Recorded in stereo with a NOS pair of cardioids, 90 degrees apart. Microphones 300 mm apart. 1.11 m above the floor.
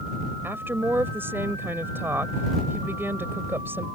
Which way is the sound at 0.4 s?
5° right.